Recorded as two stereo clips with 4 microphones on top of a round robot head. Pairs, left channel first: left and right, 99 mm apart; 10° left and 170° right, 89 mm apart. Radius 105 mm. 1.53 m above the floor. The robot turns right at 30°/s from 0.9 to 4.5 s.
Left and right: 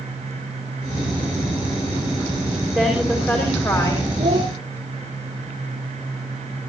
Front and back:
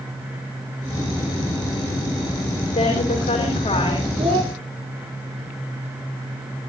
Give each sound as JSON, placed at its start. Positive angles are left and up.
{"t": 2.7, "sound": "a woman speaking", "azimuth_deg": 0, "distance_m": 5.5}
{"t": 4.2, "sound": "a child speaking", "azimuth_deg": -145, "distance_m": 1.2}